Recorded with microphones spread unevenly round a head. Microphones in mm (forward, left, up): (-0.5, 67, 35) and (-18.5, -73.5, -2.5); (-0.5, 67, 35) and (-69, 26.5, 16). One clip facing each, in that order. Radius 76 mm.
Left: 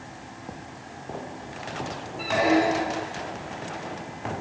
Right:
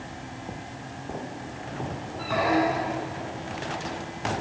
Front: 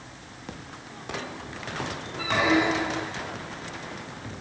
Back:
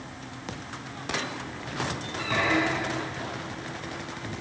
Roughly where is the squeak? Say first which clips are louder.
Left 2 dB, front 3 dB; left.